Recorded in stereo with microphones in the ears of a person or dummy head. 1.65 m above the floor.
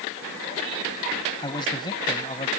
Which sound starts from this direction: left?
A man speaking, at 1.4 s.